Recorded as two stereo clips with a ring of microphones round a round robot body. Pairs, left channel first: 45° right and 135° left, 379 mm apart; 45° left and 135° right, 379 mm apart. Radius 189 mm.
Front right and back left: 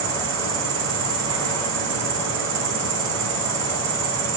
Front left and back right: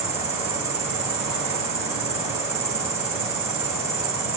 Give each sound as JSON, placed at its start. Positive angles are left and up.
{"t": 0.0, "sound": "an insect", "azimuth_deg": 175, "distance_m": 1.2}